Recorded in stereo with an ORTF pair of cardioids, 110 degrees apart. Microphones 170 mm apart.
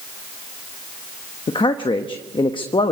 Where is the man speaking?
30° left, 1.1 m.